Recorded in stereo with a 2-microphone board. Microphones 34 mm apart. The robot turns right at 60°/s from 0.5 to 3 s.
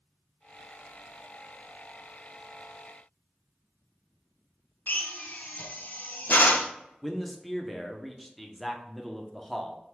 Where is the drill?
60° left (ahead or behind), 0.5 m.